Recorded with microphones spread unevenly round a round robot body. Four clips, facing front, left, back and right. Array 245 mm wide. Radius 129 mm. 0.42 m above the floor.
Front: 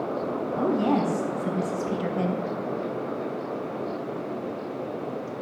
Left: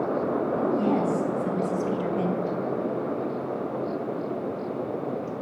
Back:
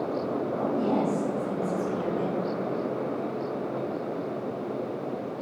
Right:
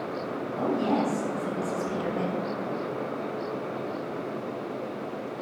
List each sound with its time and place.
0.5 s a woman speaking: 25° left, 4.5 m; by 2.4 s 35° left, 2 m